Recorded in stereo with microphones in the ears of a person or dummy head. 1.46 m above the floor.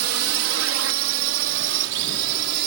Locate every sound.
0.0 s a drone: 75° right (ahead or behind); by 2.7 s 70° right (ahead or behind)